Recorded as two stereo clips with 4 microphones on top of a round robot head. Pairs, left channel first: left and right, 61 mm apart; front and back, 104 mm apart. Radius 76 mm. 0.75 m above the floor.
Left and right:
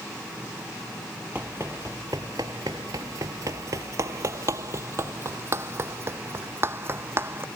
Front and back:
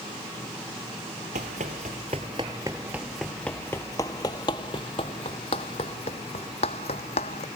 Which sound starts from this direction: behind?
Running footsteps, at 1.4 s.